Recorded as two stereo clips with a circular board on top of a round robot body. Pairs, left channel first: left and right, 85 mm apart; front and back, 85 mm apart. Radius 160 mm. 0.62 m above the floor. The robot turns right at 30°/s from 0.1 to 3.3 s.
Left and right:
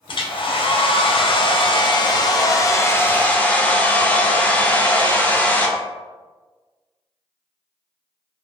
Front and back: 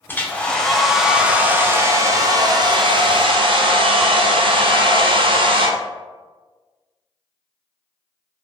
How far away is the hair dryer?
About 0.6 m.